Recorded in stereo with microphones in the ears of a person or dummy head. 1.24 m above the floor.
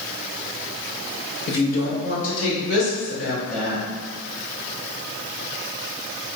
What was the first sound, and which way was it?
A woman speaking, 50° left (ahead or behind).